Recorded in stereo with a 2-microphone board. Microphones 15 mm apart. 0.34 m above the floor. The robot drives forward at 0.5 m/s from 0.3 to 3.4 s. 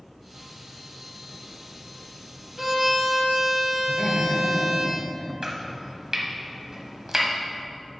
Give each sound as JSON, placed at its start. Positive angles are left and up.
{"t": 2.6, "sound": "a violin", "side_deg": -25, "distance_m": 1.3}
{"t": 3.9, "sound": "laughter", "side_deg": -5, "distance_m": 1.3}
{"t": 5.4, "sound": "chopping", "side_deg": -40, "distance_m": 1.1}